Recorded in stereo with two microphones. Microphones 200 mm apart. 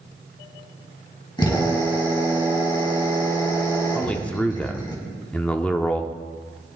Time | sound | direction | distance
1.4 | a drill | 20° left (ahead or behind) | 3 m
4.0 | a man speaking | 5° left (ahead or behind) | 0.7 m